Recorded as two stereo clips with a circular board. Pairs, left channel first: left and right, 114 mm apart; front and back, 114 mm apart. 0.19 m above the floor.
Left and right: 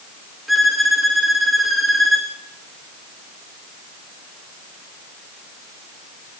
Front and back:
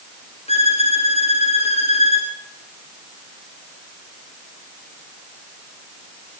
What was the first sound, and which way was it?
A violin, straight ahead.